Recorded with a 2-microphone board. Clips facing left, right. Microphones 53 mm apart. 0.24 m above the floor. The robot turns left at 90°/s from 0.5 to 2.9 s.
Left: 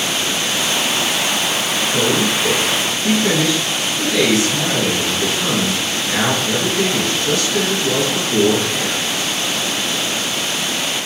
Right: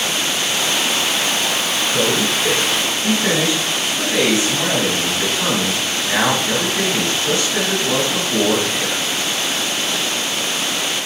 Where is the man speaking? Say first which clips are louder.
Left 1 dB; 40° left, 1.9 m; by 9.0 s 50° right, 1.9 m.